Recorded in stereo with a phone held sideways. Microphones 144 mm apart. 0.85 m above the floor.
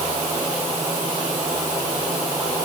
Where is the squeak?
No squeak in this recording.